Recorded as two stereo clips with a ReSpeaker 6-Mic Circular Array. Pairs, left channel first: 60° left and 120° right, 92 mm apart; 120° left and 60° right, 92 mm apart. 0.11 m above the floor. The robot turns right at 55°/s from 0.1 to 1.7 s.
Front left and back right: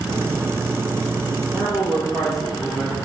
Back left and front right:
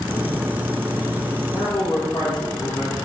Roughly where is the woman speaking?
Behind left.